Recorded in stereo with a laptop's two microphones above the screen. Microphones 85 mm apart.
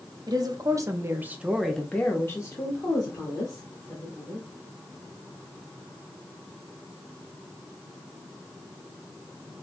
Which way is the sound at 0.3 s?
50° right (ahead or behind).